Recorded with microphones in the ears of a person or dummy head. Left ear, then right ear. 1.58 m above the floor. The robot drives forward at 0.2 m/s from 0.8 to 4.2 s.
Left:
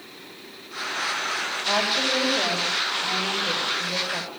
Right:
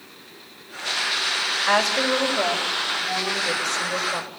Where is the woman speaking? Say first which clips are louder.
Right 1 dB; 60° right (ahead or behind), 6.5 m.